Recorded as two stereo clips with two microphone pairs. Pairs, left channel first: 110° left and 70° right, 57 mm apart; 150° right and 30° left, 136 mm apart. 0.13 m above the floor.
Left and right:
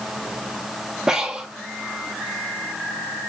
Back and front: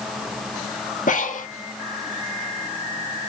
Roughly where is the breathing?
Behind right.